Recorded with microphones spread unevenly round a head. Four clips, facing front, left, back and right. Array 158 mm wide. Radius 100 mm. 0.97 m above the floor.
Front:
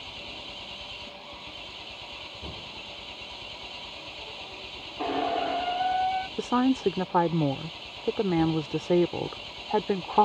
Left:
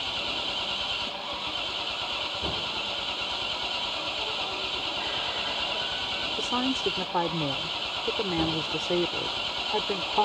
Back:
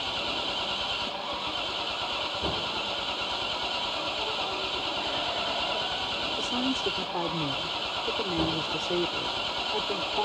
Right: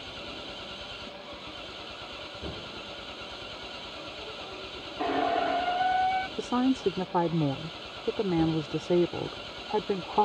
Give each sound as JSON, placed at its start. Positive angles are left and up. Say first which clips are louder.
{"t": 0.0, "sound": "an engine running", "louder": "left 6 dB, back 11 dB", "azimuth_deg": -165}
{"t": 5.0, "sound": "a squeak", "louder": "right 13 dB, front 9 dB", "azimuth_deg": -40}
{"t": 6.4, "sound": "a woman speaking", "louder": "right 1 dB, front 7 dB", "azimuth_deg": 20}